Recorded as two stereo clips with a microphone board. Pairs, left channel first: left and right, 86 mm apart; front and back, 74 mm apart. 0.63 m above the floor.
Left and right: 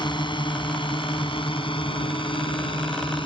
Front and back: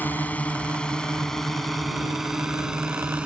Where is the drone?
65° left; by 3.3 s 105° left.